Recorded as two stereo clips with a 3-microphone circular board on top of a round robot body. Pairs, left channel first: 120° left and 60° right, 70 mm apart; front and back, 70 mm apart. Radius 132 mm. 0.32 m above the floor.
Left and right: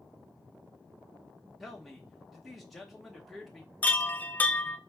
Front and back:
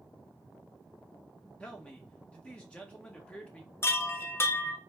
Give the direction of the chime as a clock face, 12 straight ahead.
10 o'clock.